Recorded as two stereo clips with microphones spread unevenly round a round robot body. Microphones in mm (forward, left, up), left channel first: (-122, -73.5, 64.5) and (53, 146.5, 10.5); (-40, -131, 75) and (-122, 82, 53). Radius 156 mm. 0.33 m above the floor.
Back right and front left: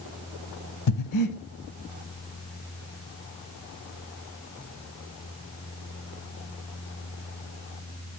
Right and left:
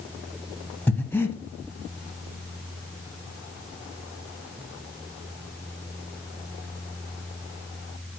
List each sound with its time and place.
0.9 s breathing: 150° right, 0.9 m